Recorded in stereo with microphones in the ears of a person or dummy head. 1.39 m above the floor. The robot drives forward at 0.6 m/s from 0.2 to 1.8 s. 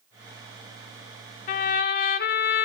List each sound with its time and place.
1.5 s a trumpet: 35° left (ahead or behind), 0.6 m; by 2.7 s 30° left (ahead or behind), 0.6 m